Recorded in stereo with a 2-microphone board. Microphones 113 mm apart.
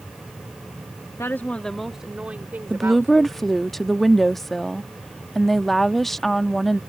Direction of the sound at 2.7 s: 5° left (ahead or behind).